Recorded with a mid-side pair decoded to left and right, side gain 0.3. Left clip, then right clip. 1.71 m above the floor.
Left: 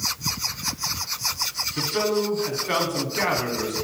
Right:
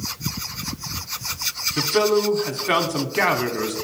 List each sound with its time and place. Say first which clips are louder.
1.8 s a man speaking: right 5 dB; 65° right, 1.0 m